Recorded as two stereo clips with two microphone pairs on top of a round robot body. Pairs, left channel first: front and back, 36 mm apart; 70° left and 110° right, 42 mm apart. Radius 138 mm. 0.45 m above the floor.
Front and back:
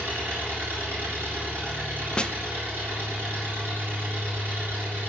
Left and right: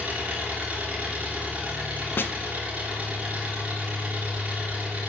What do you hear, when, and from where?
0.0 s an engine running: 160° right, 3 m
2.2 s a snare drum: 50° left, 0.5 m